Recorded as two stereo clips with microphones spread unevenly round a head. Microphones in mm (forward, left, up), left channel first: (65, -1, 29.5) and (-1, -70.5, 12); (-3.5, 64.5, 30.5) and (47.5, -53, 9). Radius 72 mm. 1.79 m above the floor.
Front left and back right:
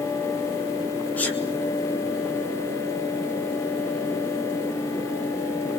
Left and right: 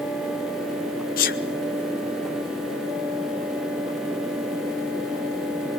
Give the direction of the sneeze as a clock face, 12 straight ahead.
8 o'clock.